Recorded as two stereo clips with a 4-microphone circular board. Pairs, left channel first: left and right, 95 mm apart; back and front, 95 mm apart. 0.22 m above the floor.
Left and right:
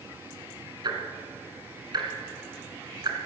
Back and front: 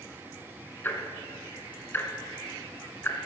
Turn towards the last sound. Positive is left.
turn(degrees=-115)